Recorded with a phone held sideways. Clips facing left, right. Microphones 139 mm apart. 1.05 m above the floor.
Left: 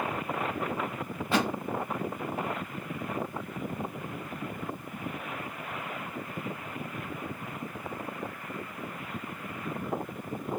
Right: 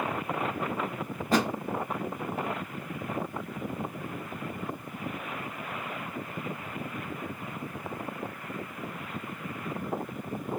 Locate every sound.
1.3 s a thud: 40° right (ahead or behind), 0.7 m